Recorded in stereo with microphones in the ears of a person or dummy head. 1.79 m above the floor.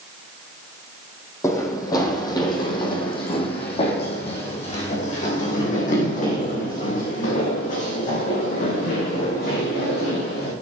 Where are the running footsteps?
20° left (ahead or behind), 4.5 m; by 10.5 s 60° left (ahead or behind), 7.5 m.